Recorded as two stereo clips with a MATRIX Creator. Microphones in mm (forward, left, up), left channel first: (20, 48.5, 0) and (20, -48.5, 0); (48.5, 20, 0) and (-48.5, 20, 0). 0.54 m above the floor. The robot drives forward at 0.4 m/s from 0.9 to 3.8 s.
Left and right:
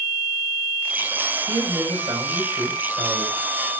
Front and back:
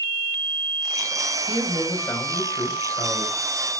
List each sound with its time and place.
1.5 s a man speaking: 50° right, 2.5 m; by 3.3 s 70° right, 2 m